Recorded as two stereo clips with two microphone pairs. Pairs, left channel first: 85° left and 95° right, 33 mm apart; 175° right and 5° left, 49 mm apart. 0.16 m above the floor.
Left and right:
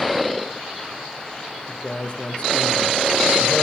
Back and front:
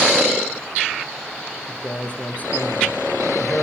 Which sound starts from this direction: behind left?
A man speaking, at 1.7 s.